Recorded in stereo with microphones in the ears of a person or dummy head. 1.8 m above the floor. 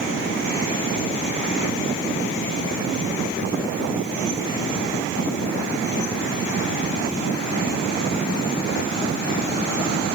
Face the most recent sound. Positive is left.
No sound to turn to.